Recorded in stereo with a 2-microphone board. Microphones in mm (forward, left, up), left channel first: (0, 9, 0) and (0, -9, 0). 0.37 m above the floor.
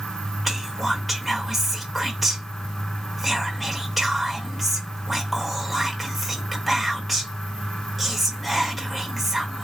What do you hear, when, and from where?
0.5 s whispering: 10° right (ahead or behind), 0.8 m